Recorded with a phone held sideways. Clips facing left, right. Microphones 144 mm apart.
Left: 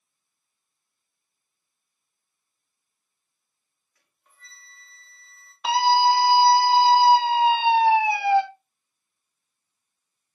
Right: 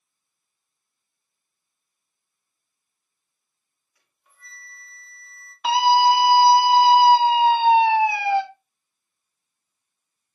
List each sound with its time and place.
4.0 s a flute: 10° right (ahead or behind), 3 m
5.6 s a scream: centre (ahead or behind), 1.7 m